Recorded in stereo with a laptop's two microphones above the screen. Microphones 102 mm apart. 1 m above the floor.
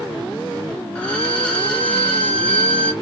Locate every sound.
0.9 s a violin: 10° left (ahead or behind), 1.0 m